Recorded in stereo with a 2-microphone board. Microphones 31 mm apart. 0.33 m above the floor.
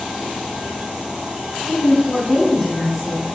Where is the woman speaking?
Centre (ahead or behind), 3.5 m.